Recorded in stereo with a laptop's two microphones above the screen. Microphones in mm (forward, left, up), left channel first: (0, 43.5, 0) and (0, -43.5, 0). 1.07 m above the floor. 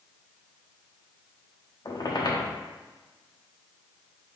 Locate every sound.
1.9 s a squeak: 50° left (ahead or behind), 0.8 m